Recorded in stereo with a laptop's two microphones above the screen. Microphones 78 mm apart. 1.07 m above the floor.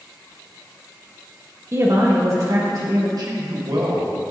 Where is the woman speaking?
35° right (ahead or behind), 0.7 m; by 3.1 s 45° right (ahead or behind), 1.2 m.